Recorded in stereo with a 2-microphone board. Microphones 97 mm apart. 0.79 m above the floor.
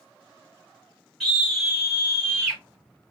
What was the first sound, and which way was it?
A scream, 10° right (ahead or behind).